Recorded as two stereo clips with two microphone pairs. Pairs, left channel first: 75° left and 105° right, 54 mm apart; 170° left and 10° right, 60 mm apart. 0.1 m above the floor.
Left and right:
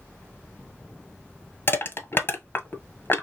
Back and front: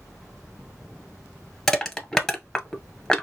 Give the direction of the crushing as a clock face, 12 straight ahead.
9 o'clock.